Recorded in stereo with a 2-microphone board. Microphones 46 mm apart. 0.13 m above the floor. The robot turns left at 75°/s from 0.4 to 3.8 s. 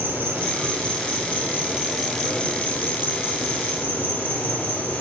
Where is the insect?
60° right, 1.6 m; by 5.0 s 45° left, 1.6 m.